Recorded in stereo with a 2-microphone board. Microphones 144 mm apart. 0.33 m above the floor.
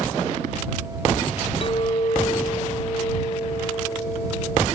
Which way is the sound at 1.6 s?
40° left (ahead or behind).